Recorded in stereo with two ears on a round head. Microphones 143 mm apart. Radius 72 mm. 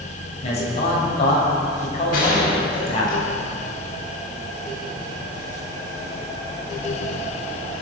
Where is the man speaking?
40° left (ahead or behind), 7 m.